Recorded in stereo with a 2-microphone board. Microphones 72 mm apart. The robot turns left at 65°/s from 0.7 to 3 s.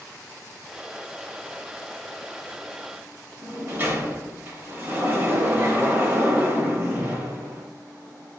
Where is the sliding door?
35° right (ahead or behind), 1.1 m.